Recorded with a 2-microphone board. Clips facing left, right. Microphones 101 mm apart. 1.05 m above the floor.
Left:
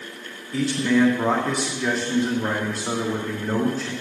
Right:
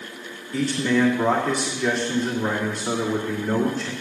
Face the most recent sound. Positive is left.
turn(degrees=5)  # may be behind; listen again after turning